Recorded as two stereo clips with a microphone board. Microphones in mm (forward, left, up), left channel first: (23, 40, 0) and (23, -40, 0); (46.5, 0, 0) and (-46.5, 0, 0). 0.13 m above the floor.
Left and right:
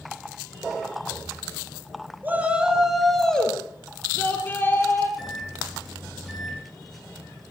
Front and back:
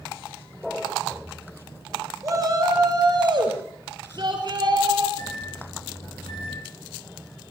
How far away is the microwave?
About 3.5 m.